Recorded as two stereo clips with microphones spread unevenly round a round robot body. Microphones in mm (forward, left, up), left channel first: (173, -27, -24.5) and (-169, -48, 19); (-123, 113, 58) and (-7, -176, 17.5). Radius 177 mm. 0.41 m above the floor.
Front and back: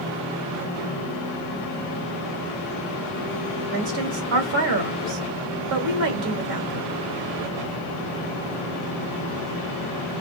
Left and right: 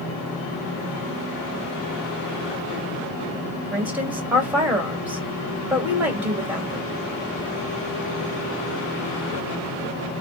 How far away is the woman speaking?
About 2 m.